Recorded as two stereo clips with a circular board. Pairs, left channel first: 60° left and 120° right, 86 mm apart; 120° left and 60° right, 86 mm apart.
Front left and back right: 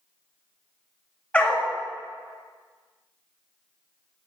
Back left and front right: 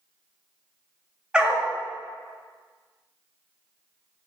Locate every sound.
1.3 s a dog barking: 5° left, 1.2 m